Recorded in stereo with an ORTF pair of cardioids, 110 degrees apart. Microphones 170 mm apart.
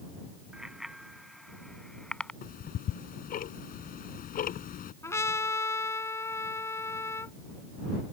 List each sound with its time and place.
0.5 s a bicycle bell: 5° right; by 2.3 s 5° left
2.4 s ticking: 55° left
5.0 s a trumpet: 15° left